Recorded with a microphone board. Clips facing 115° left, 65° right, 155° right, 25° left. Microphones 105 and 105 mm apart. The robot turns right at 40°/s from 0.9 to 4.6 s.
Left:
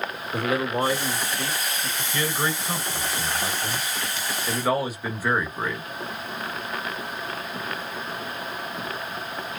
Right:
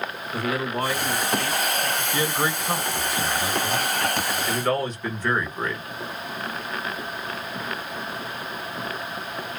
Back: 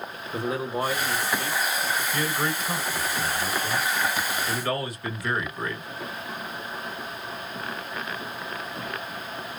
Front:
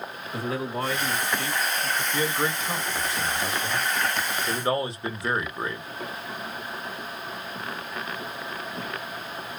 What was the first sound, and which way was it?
A man speaking, 160° left.